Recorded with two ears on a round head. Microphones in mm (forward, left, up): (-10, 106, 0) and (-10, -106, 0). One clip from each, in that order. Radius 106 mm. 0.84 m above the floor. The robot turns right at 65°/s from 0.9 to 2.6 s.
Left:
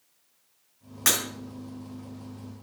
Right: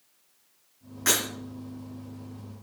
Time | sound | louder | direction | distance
1.1 | breaking glass | even | 35° left (ahead or behind) | 4.5 m